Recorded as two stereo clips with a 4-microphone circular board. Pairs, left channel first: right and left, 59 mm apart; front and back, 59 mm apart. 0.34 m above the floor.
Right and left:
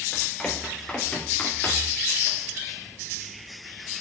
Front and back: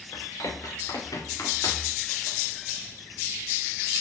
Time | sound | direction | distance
0.1 | running footsteps | 10° right | 4.5 m